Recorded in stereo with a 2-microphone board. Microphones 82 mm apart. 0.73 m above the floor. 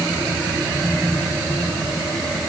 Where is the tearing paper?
I don't hear tearing paper.